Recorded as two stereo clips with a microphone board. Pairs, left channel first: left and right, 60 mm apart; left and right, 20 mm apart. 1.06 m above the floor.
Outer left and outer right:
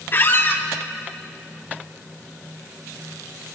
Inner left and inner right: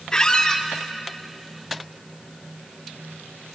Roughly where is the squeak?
Left.